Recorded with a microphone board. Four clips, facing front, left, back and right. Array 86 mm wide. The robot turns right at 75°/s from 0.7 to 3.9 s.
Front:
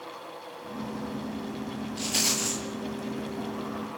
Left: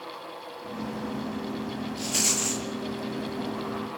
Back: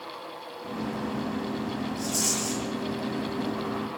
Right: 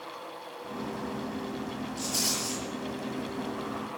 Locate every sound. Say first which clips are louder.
2.0 s a rattle: left 3 dB, back 2 dB; 20° left, 7.5 m; by 2.6 s 70° left, 7.5 m